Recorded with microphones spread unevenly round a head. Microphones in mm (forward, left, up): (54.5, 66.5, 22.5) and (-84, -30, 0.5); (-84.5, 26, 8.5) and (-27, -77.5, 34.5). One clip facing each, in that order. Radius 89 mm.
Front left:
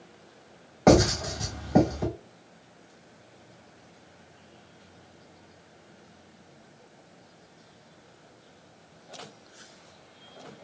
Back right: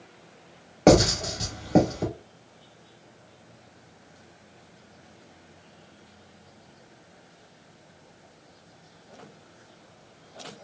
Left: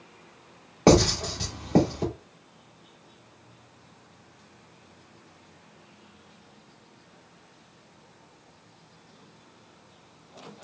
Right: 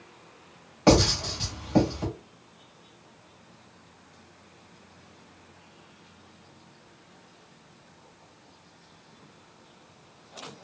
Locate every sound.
0.9 s writing: 155° left, 1.6 m